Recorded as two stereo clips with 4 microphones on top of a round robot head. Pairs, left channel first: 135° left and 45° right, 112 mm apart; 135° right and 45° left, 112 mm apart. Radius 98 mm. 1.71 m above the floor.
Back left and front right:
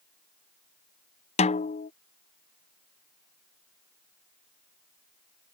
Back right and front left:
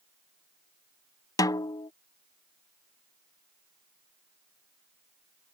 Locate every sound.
1.4 s a snare drum: 165° left